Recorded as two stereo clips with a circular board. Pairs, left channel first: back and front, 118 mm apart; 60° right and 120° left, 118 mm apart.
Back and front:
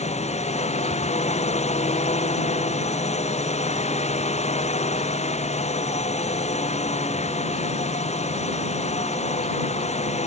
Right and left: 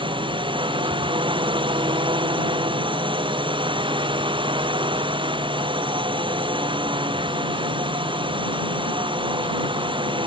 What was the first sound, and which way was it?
A drone, 165° left.